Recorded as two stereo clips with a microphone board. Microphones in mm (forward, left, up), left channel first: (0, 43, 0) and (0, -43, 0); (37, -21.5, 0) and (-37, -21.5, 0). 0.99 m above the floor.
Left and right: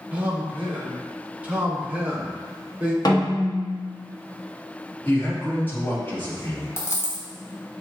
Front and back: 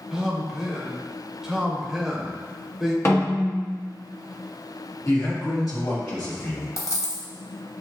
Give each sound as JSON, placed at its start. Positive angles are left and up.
{"t": 0.1, "sound": "a man speaking", "azimuth_deg": -110, "distance_m": 0.8}
{"t": 3.0, "sound": "a snare drum", "azimuth_deg": 50, "distance_m": 1.2}
{"t": 5.0, "sound": "a man speaking", "azimuth_deg": 25, "distance_m": 1.9}
{"t": 6.8, "sound": "a dropped coin", "azimuth_deg": 35, "distance_m": 1.0}